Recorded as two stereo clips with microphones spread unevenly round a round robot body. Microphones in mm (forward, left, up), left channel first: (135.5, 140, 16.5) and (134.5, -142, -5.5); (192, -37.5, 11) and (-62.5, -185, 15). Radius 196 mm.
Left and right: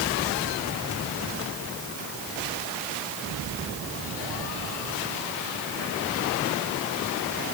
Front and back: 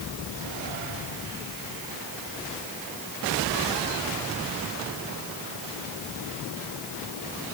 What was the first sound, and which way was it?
Only background noise.